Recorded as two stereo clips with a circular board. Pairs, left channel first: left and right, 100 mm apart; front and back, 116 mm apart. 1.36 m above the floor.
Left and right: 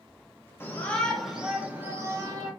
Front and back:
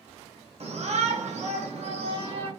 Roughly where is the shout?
Behind left.